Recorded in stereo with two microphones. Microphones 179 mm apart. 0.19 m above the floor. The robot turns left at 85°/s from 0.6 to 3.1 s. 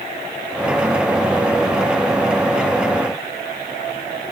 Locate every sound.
Only background noise.